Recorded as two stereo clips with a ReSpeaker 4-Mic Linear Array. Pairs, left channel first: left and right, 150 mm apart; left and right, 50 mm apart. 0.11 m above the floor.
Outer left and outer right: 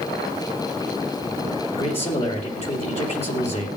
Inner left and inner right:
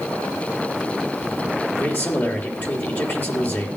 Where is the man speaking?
45° left (ahead or behind), 3 m.